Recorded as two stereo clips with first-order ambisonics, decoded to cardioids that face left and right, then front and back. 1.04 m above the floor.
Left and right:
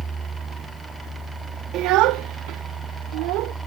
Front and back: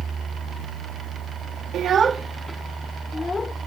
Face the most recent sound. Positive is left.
turn(degrees=-75)